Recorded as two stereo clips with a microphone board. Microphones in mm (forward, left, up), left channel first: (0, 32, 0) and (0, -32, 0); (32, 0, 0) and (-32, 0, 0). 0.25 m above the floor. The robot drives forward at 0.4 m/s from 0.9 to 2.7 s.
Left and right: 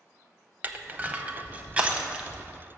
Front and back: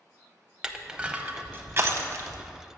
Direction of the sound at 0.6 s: 115° right.